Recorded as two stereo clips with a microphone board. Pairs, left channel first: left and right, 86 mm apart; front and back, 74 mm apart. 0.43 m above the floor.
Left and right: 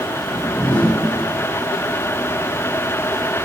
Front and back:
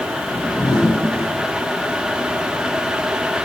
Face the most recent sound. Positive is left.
turn(degrees=20)